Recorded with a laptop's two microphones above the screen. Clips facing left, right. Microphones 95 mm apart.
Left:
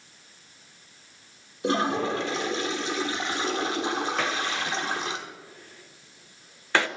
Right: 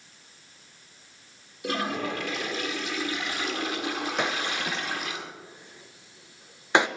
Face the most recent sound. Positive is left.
turn(degrees=-15)  # may be behind; listen again after turning